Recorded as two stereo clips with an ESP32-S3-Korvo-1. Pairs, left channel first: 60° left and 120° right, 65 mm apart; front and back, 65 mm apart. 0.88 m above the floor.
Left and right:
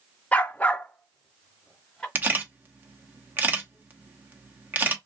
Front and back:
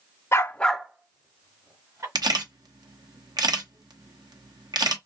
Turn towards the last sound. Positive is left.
turn(degrees=175)